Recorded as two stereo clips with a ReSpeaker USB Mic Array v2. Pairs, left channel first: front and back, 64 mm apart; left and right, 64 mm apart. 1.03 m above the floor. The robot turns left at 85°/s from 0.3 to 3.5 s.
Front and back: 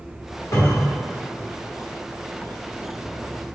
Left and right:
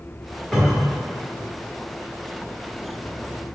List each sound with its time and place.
0.5 s a cupboard door: straight ahead, 1.0 m; by 1.0 s 35° right, 1.0 m